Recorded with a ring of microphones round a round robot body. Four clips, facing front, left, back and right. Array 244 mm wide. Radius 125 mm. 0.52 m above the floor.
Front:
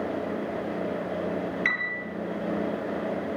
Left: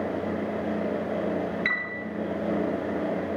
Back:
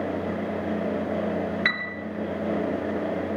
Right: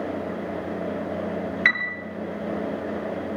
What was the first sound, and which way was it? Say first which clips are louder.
A piano: right 5 dB, back 1 dB; 130° right.